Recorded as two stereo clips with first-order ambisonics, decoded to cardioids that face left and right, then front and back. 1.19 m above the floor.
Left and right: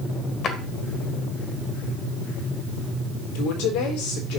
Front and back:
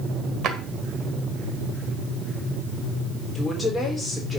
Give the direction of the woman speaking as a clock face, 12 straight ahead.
9 o'clock.